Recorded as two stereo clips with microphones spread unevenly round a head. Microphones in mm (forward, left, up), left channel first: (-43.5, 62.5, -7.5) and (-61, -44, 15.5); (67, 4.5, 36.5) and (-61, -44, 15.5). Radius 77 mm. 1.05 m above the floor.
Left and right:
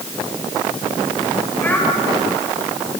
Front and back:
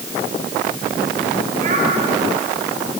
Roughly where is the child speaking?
Behind left.